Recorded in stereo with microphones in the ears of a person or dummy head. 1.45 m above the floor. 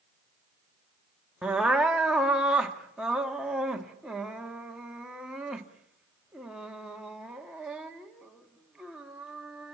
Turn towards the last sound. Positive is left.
turn(degrees=-5)  # may be behind; listen again after turning